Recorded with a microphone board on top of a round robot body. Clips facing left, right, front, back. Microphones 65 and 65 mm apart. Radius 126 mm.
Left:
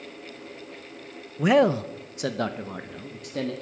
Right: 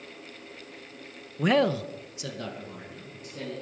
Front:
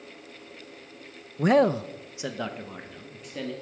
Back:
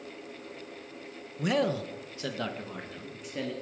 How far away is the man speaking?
About 0.6 m.